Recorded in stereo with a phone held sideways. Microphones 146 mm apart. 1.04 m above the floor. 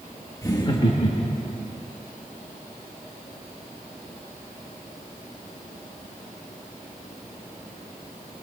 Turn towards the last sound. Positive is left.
turn(degrees=50)  # may be behind; listen again after turning